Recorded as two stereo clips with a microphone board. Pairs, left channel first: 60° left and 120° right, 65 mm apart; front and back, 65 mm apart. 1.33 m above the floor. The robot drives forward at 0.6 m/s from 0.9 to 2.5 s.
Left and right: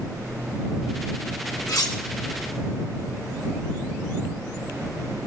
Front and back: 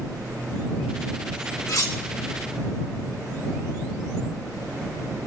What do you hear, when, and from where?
1.7 s cutlery clinking: 35° left, 2.0 m